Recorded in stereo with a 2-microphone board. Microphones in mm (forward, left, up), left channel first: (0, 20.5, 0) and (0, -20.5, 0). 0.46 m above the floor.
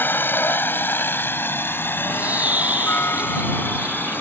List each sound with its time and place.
0.0 s a helicopter: 60° left (ahead or behind); by 4.2 s 55° left (ahead or behind)
2.1 s a bird: 40° right (ahead or behind)